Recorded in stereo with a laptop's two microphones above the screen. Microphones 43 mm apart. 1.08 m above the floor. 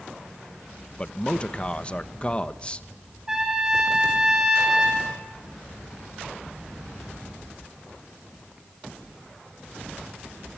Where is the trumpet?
15° right (ahead or behind), 8.5 m.